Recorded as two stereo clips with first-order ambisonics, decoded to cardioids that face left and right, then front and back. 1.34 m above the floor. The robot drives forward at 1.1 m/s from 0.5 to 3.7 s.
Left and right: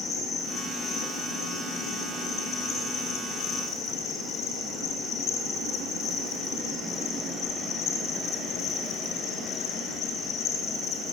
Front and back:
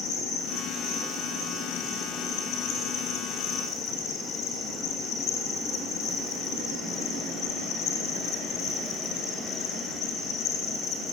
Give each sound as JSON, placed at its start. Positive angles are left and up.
{"t": 0.0, "sound": "an insect", "azimuth_deg": 30, "distance_m": 8.0}